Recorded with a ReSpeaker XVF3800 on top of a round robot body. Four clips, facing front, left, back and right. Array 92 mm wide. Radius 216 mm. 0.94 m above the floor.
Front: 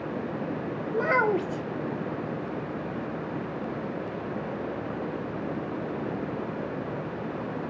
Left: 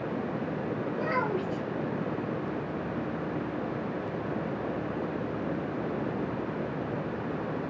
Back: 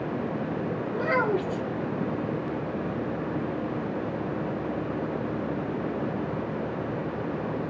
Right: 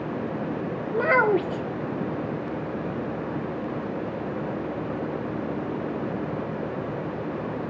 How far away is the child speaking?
About 0.5 m.